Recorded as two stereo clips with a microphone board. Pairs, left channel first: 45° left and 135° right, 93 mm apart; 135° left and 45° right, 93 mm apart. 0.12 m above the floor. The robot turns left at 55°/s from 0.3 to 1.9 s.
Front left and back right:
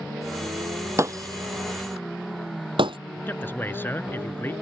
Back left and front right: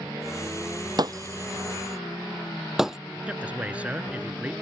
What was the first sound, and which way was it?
Breaking glass, 80° right.